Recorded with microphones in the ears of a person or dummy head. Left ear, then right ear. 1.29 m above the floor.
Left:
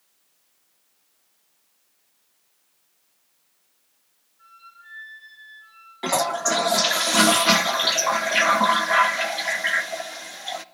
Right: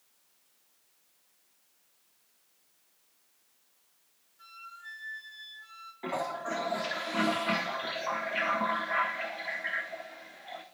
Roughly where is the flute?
Right.